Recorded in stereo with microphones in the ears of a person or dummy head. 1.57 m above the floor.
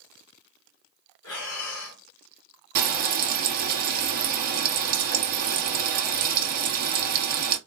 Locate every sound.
1.2 s breathing: 75° left (ahead or behind), 1.5 m
2.8 s frying: 55° right (ahead or behind), 1.1 m